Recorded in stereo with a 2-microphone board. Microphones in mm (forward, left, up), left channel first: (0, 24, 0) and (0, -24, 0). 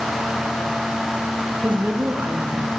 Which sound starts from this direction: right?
A woman speaking, at 1.6 s.